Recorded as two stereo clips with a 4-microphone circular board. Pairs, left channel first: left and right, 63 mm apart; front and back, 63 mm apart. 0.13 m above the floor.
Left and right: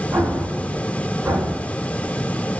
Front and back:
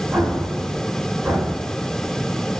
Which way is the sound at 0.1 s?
115° right.